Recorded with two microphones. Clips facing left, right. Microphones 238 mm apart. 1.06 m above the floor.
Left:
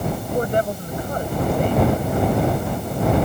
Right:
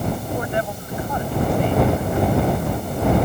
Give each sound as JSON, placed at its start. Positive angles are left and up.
{"t": 0.3, "sound": "a woman speaking", "side_deg": 45}